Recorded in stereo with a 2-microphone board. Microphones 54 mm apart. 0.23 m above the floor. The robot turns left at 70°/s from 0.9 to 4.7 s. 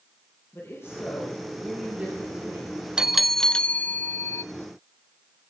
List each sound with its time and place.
0.5 s a woman speaking: 55° left, 5.5 m; by 2.8 s 80° right, 5.5 m
3.0 s a bell: 160° right, 0.5 m; by 4.4 s 95° left, 0.5 m